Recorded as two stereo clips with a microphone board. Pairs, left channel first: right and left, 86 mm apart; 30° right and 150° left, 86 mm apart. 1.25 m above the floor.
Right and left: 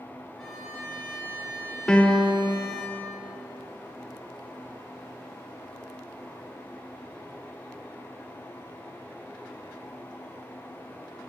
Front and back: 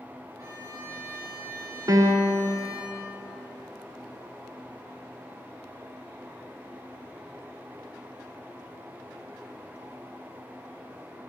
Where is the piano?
170° right, 0.5 m.